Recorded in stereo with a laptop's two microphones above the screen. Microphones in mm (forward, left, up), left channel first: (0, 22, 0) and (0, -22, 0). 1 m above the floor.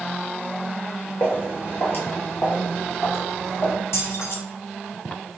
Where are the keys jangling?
75° left (ahead or behind), 1.0 m.